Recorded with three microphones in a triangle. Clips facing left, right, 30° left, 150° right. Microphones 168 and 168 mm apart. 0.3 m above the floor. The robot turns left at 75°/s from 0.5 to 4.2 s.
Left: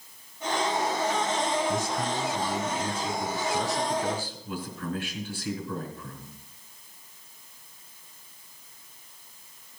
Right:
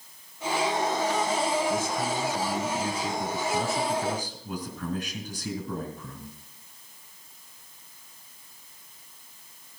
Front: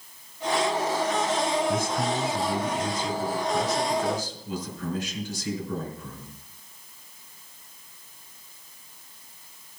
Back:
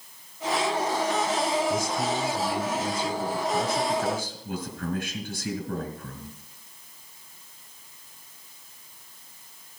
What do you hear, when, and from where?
1.7 s a man speaking: 55° left, 3.5 m; by 6.3 s 130° right, 3.5 m